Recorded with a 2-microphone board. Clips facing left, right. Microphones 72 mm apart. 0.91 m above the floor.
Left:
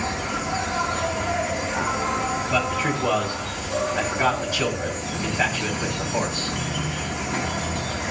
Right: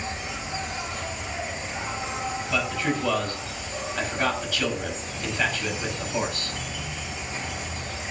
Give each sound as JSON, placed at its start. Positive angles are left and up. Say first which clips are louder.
{"t": 0.0, "sound": "an insect", "louder": "left 7 dB", "side_deg": 65, "distance_m": 1.2}
{"t": 2.5, "sound": "a man speaking", "louder": "left 1 dB", "side_deg": 20, "distance_m": 5.0}